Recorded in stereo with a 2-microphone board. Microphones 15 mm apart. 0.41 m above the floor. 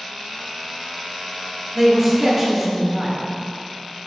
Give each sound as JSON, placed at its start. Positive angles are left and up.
{"t": 1.8, "sound": "a man speaking", "side_deg": -20, "distance_m": 0.8}